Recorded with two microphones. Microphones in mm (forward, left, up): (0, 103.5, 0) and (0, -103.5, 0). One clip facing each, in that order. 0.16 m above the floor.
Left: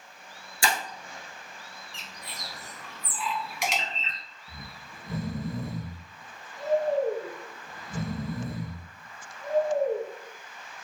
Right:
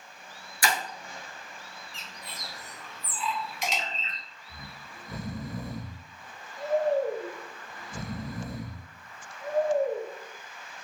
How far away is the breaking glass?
About 0.9 m.